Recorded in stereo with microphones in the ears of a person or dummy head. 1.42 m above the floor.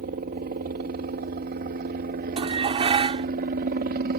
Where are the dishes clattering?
30° right (ahead or behind).